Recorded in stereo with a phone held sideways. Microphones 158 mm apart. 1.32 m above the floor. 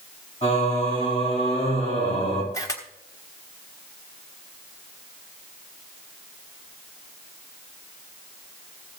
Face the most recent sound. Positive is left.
turn(degrees=20)  # may be behind; listen again after turning